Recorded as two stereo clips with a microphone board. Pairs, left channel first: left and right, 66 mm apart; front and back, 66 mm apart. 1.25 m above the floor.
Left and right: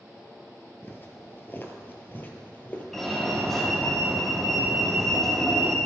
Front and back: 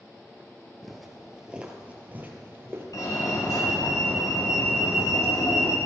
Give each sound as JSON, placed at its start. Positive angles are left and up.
{"t": 0.8, "sound": "footsteps", "azimuth_deg": 90, "distance_m": 1.4}
{"t": 2.9, "sound": "a fire alarm", "azimuth_deg": 5, "distance_m": 1.7}